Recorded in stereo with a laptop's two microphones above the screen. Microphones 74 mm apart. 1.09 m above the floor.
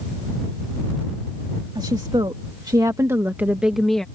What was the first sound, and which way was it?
A woman speaking, 75° right (ahead or behind).